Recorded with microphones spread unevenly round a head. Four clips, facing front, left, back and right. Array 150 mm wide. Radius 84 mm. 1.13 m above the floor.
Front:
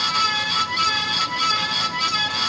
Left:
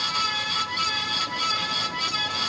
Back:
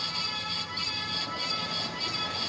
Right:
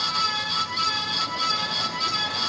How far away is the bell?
No bell in this recording.